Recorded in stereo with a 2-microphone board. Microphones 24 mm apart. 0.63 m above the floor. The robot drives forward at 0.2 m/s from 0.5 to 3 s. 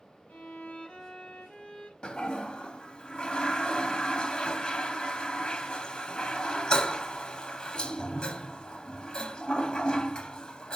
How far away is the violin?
About 1.3 m.